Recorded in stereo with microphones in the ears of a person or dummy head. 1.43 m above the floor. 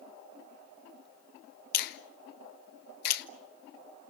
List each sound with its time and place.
1.7 s a finger snap: 60° left (ahead or behind), 1.3 m